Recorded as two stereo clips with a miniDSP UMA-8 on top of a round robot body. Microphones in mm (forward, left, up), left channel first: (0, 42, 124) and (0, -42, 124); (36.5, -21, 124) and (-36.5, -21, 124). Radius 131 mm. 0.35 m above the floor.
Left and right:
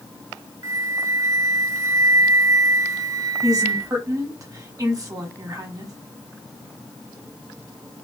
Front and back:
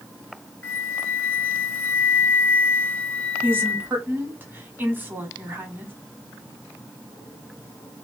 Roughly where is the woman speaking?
Behind right.